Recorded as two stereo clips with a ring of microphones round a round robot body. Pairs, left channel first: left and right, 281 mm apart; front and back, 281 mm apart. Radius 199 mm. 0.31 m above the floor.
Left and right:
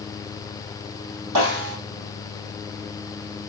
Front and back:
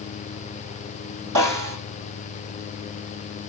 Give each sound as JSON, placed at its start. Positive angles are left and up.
{"t": 1.4, "sound": "a snare drum", "azimuth_deg": -130, "distance_m": 4.0}